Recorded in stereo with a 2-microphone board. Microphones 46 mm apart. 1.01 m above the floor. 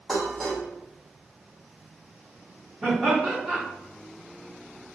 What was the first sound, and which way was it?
Dishes clattering, 5° right (ahead or behind).